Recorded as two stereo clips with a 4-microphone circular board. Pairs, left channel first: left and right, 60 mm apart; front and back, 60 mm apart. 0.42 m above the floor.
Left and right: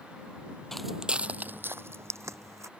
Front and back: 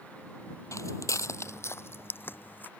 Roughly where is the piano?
No piano in this recording.